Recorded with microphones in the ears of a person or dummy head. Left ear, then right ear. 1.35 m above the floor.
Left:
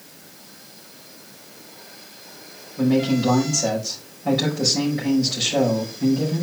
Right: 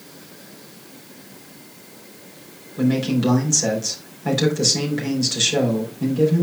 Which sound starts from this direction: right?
A man speaking, at 2.8 s.